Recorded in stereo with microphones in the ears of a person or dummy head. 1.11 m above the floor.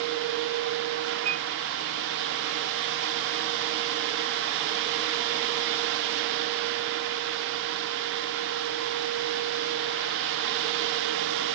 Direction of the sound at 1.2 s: 80° right.